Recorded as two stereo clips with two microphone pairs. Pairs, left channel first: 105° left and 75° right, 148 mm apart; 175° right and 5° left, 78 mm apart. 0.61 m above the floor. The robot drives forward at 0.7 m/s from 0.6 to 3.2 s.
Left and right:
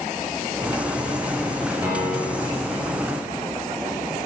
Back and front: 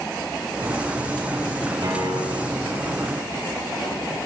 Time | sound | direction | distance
1.8 | a piano | 5° left | 4.5 m